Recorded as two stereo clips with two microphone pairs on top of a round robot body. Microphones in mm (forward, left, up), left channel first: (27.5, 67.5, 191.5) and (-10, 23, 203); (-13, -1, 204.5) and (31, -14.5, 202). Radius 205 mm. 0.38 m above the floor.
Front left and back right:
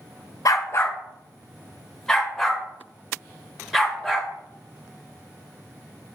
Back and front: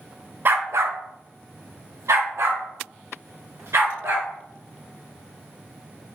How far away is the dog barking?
About 0.7 m.